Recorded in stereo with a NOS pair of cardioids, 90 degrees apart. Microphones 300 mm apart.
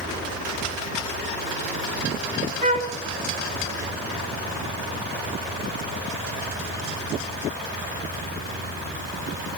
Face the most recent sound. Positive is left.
turn(degrees=-25)